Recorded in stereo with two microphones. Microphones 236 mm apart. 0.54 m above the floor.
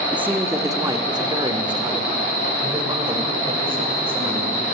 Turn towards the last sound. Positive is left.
turn(degrees=-25)  # may be behind; listen again after turning